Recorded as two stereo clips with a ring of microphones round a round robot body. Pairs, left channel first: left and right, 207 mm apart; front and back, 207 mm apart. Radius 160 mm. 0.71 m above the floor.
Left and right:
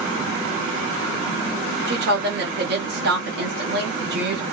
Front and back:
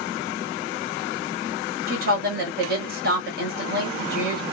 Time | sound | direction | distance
1.9 | a woman speaking | 135° right | 1.2 m